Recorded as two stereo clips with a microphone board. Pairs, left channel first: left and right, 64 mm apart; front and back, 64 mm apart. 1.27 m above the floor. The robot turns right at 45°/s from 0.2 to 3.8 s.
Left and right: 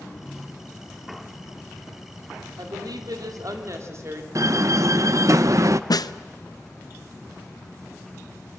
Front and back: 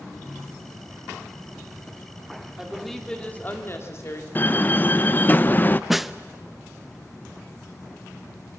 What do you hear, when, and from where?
2.6 s a woman speaking: 100° right, 3 m; by 4.2 s 45° right, 3 m
4.3 s a door slam: 60° right, 0.6 m
5.9 s a snare drum: 95° left, 0.6 m